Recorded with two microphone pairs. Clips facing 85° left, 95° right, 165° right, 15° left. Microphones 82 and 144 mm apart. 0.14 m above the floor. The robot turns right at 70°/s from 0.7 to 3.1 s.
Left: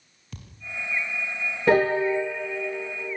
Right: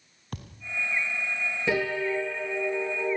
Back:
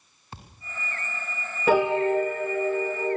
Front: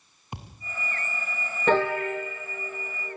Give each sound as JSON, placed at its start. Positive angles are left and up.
{"t": 0.3, "sound": "a thud", "azimuth_deg": -60, "distance_m": 2.0}
{"t": 1.7, "sound": "a piano", "azimuth_deg": 115, "distance_m": 0.6}